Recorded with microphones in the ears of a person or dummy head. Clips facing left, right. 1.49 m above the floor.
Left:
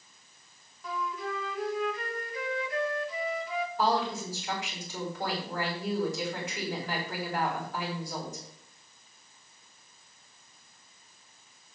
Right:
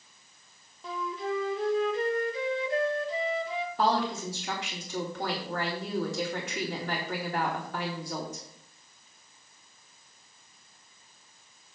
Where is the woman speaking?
55° right (ahead or behind), 4 m.